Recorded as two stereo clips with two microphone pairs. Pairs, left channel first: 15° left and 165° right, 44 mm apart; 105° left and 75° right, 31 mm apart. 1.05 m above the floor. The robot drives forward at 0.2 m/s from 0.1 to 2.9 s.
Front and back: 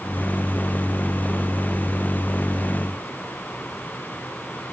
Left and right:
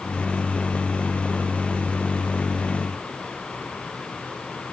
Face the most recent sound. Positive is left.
No sound to turn to.